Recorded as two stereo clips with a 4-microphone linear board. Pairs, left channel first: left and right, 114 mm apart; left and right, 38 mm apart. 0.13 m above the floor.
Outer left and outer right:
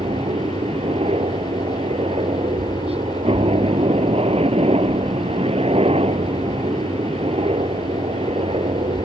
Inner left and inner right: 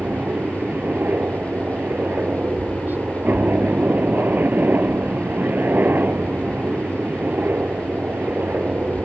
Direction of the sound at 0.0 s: 60° right (ahead or behind).